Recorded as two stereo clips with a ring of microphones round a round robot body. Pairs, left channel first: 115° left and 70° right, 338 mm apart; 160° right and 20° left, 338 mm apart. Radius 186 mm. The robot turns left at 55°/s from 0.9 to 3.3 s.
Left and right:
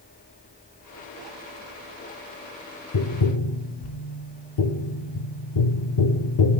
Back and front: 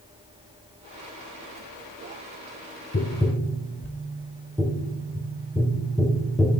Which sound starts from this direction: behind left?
Tapping, at 2.9 s.